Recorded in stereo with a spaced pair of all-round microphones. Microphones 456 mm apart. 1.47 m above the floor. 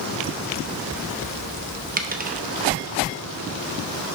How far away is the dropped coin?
About 0.7 m.